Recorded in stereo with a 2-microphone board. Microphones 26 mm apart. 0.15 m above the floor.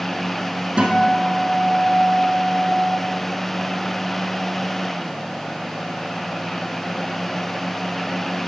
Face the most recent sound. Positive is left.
turn(degrees=-45)  # may be behind; listen again after turning